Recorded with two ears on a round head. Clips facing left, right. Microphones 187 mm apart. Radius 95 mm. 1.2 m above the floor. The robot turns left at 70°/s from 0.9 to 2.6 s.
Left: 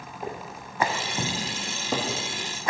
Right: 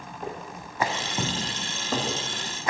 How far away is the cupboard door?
About 1.2 m.